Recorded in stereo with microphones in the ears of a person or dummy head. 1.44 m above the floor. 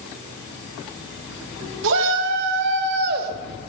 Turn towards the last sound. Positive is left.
turn(degrees=-50)  # may be behind; listen again after turning